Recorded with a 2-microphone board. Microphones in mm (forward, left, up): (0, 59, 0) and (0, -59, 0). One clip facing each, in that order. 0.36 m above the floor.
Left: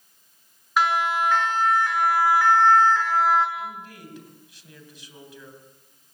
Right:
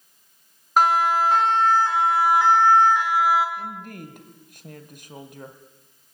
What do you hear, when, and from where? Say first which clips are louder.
0.8 s a siren: right 4 dB; 45° right (ahead or behind), 3.5 m; by 3.5 s 5° right (ahead or behind), 4 m
3.6 s a woman speaking: right 1 dB; 50° right (ahead or behind), 2.5 m